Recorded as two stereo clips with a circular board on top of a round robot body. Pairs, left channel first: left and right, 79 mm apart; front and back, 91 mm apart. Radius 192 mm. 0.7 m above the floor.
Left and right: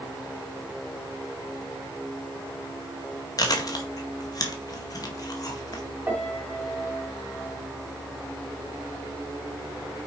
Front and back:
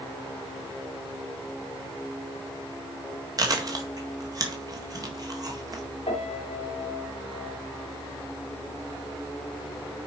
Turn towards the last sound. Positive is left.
turn(degrees=-25)